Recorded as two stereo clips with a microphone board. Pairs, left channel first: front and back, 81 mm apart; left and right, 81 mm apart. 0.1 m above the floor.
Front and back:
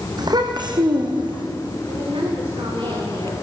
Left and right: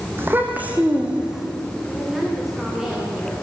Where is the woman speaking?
175° right, 9 m.